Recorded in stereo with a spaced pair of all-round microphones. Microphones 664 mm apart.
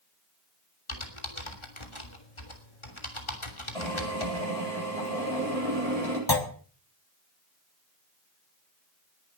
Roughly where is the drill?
Right.